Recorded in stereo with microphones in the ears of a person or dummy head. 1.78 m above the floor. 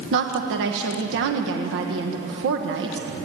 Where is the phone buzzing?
I don't hear a phone buzzing.